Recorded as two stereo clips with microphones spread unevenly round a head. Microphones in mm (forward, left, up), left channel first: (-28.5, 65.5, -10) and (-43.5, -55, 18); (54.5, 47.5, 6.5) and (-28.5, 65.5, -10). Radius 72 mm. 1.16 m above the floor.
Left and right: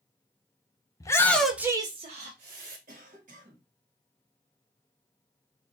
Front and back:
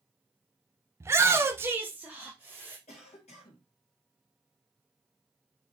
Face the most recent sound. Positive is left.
turn(degrees=-50)